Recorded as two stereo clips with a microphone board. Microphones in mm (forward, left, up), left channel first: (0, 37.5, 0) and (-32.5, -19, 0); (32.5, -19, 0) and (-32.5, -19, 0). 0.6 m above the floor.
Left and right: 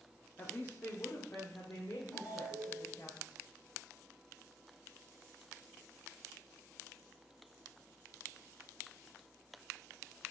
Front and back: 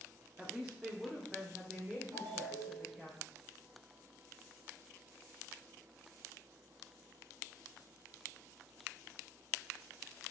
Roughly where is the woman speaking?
Left.